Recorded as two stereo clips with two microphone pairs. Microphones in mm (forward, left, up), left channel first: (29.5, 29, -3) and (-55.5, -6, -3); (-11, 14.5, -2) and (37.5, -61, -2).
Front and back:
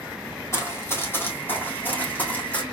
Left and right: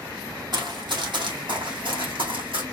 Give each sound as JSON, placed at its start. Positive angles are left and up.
{"t": 0.5, "sound": "running footsteps", "azimuth_deg": -35, "distance_m": 1.7}